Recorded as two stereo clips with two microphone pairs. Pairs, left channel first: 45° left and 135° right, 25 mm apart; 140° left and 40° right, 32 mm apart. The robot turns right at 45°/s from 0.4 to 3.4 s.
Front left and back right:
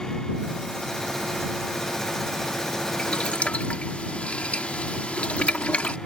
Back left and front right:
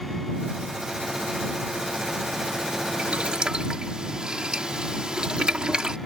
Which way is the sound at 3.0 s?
10° left.